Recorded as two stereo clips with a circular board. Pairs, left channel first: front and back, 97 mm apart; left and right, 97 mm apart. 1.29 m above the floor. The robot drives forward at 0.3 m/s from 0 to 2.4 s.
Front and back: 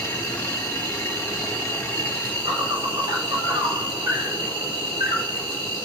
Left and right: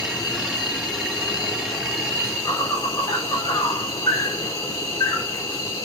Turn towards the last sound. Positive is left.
turn(degrees=145)